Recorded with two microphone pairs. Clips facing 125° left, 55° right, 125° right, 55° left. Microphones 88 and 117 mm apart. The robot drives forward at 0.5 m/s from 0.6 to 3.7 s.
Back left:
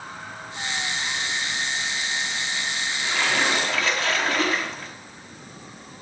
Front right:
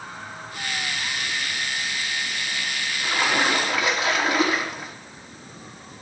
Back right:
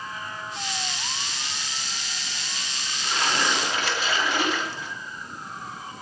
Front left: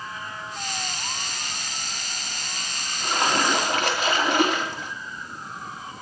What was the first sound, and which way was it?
A splash, 20° left.